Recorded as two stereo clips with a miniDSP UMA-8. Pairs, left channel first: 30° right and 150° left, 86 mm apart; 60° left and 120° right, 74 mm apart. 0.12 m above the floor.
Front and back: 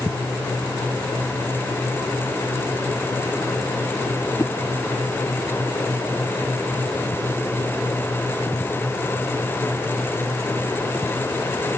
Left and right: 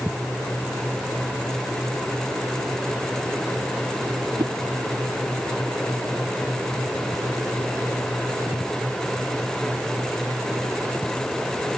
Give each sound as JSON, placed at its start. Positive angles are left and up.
{"t": 4.4, "sound": "a whoosh", "azimuth_deg": -90}